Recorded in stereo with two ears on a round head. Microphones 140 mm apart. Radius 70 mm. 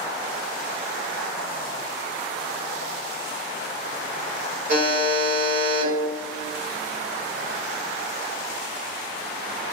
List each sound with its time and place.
4.7 s a buzzer: 55° right (ahead or behind), 1.5 m